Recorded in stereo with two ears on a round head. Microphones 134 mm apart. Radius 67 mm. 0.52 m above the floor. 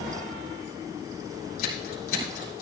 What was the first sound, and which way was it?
Scissors, 70° left (ahead or behind).